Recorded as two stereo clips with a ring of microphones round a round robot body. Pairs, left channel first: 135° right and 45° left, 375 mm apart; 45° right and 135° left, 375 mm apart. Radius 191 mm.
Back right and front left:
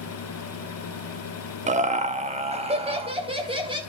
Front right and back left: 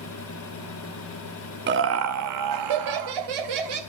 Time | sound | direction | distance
1.7 | laughter | 100° left | 0.8 m